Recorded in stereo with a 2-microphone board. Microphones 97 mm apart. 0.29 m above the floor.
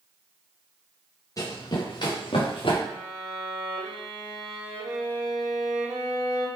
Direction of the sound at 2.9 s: 35° right (ahead or behind).